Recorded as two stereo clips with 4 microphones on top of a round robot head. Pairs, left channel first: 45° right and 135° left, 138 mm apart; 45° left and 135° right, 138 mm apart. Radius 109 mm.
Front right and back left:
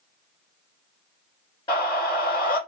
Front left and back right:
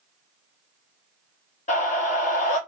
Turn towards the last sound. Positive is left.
turn(degrees=10)